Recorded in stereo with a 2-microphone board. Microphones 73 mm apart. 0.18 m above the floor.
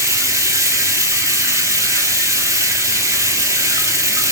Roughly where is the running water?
Right.